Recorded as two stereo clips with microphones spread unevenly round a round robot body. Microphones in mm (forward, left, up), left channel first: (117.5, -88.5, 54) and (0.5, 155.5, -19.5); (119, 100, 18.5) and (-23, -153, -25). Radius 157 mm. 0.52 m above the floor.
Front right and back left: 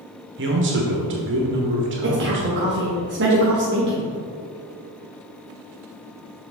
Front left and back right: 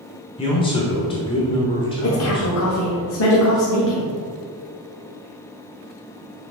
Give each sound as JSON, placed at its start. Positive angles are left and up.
{"t": 0.4, "sound": "a man speaking", "azimuth_deg": 140, "distance_m": 1.1}
{"t": 2.0, "sound": "a woman speaking", "azimuth_deg": 110, "distance_m": 1.1}